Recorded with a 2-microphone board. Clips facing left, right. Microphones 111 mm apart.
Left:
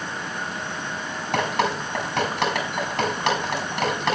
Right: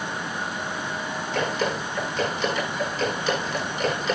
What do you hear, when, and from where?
1.3 s dripping: 75° left (ahead or behind), 5.5 m